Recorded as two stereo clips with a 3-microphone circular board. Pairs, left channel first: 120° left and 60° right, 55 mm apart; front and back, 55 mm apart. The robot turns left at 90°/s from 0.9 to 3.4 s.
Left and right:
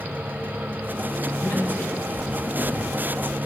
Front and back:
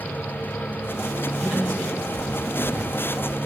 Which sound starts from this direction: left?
A man speaking, at 1.4 s.